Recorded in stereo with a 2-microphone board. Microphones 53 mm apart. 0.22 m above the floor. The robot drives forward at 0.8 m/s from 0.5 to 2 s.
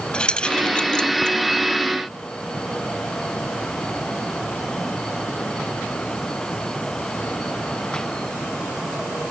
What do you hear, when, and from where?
0.1 s keys jangling: 20° left (ahead or behind), 0.8 m; by 1.4 s 15° left (ahead or behind), 1.2 m